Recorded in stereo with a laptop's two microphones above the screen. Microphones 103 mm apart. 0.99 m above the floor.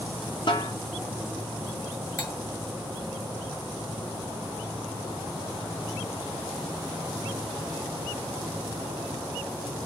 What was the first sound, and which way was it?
A snare drum, 50° left (ahead or behind).